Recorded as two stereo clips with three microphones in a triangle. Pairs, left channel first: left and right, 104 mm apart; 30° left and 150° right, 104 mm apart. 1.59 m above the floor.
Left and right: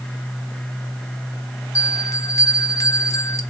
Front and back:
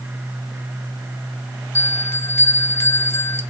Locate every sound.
1.8 s a bell: 70° left, 0.6 m